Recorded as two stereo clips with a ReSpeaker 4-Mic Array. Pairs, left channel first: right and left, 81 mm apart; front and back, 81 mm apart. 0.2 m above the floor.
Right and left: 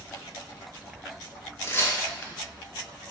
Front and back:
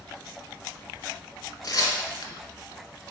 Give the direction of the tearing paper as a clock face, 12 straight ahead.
1 o'clock.